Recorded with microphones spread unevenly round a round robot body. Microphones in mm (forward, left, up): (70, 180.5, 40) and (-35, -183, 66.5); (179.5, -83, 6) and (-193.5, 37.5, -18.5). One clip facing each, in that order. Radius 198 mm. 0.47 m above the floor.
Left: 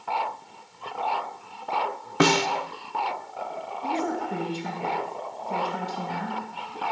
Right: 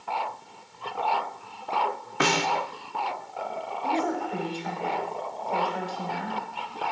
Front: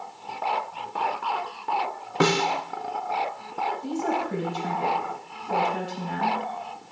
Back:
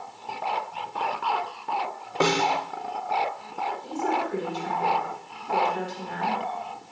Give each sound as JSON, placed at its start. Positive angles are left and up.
{"t": 2.2, "sound": "a snare drum", "azimuth_deg": 50, "distance_m": 0.8}
{"t": 3.8, "sound": "a woman speaking", "azimuth_deg": 20, "distance_m": 2.5}